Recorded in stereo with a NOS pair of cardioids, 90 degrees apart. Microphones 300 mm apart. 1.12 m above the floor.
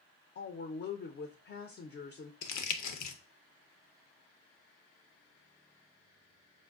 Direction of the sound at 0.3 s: 40° left.